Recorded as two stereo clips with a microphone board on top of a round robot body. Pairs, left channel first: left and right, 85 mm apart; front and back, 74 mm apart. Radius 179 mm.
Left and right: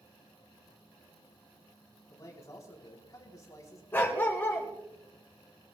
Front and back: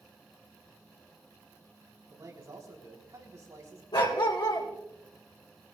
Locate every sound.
2.1 s a man speaking: 140° left, 4 m
3.9 s a dog barking: 20° left, 2.5 m